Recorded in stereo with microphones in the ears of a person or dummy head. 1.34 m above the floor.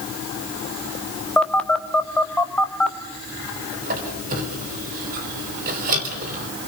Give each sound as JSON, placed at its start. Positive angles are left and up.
{"t": 1.4, "sound": "a phone buzzing", "side_deg": 10, "distance_m": 1.3}
{"t": 3.8, "sound": "a squeak", "side_deg": -50, "distance_m": 3.0}